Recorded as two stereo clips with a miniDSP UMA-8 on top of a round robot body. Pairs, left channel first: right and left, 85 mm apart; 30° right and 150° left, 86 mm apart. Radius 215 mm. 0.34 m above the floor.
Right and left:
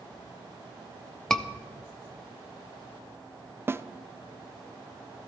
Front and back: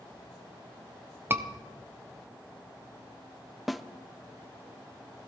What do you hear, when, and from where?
1.3 s a scream: 170° right, 1.1 m
3.7 s a snare drum: 60° left, 0.7 m